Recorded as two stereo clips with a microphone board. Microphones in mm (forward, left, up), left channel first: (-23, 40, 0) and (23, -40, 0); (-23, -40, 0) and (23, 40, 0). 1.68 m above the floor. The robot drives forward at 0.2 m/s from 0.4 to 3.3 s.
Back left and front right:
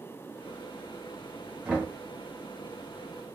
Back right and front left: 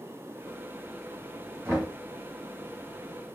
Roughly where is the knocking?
Ahead.